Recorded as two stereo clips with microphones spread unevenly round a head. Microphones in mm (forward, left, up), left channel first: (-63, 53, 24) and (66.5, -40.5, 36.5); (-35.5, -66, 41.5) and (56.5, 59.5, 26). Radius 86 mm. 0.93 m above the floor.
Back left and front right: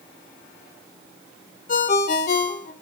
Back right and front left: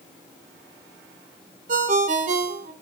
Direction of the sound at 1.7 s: 100° left.